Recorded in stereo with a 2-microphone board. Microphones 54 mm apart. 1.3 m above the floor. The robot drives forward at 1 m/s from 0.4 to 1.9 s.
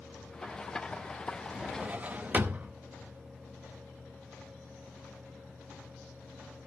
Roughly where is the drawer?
Right.